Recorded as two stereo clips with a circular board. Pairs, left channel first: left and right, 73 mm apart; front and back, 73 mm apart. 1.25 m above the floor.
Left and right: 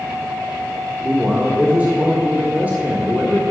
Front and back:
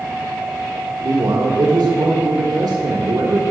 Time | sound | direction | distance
1.0 | a man speaking | 155° right | 1.1 m